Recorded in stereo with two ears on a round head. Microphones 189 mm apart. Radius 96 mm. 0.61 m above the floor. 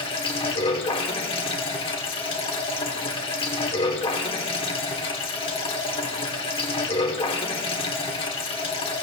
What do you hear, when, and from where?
0.0 s running water: 25° left (ahead or behind), 1.6 m